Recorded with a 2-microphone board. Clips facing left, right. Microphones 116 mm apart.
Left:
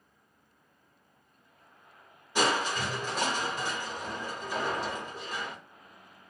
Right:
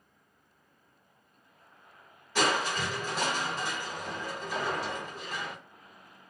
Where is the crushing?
15° left (ahead or behind), 1.2 m.